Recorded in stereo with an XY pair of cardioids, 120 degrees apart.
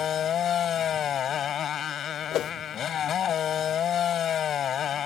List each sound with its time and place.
0.0 s a motorcycle: 55° left
2.3 s a whoosh: 70° left